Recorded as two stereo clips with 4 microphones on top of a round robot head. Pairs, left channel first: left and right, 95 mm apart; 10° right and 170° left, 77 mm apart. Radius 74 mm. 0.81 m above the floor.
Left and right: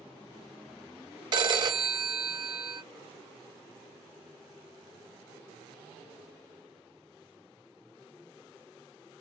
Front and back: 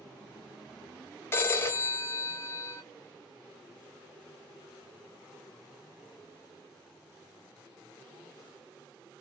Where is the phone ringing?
60° right, 0.6 m.